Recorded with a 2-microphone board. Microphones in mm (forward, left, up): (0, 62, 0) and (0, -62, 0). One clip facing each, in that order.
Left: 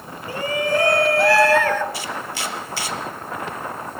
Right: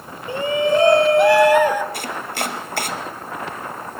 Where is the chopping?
55° right (ahead or behind), 3 m.